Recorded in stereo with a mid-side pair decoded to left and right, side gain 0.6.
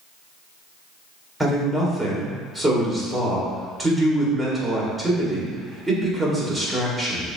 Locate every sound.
1.4 s a man speaking: 10° right, 1.9 m